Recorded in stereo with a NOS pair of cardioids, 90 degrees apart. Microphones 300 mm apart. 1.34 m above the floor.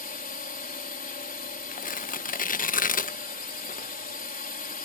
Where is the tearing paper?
25° left.